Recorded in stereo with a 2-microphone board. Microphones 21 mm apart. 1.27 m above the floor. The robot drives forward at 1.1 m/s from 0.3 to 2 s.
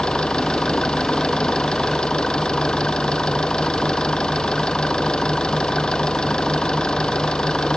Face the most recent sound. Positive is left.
turn(degrees=55)  # may be behind; listen again after turning